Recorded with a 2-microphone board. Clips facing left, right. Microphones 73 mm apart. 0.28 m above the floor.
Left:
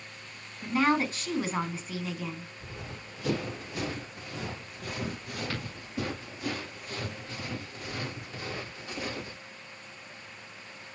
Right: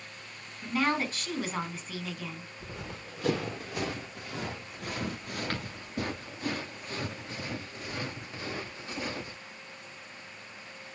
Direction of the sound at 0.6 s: 5° left (ahead or behind).